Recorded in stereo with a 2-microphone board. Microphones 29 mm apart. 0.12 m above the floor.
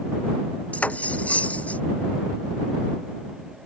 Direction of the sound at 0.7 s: 80° left.